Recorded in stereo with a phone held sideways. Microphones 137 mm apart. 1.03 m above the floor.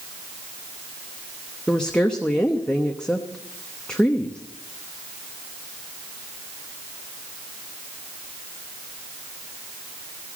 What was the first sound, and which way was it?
A woman speaking, 5° left (ahead or behind).